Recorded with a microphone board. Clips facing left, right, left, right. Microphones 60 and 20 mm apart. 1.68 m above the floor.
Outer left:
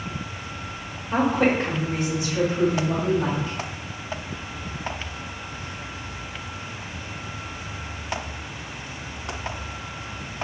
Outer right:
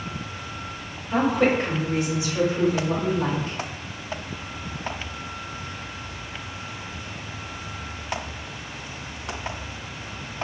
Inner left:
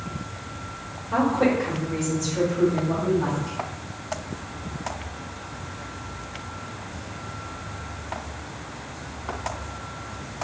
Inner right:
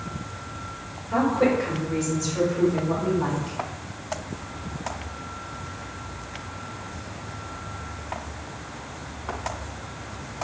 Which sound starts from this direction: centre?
A woman speaking, at 1.1 s.